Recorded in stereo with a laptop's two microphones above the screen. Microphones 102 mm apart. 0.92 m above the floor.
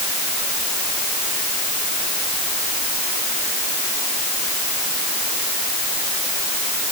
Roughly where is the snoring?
No snoring in this recording.